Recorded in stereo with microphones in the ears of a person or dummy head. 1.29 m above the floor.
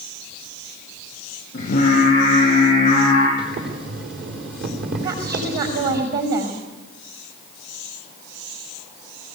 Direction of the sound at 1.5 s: 45° left (ahead or behind).